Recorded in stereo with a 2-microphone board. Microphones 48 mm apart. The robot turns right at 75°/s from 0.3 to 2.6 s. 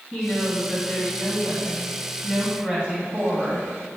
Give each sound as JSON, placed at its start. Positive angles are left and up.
{"t": 0.1, "sound": "a woman speaking", "azimuth_deg": 45, "distance_m": 1.8}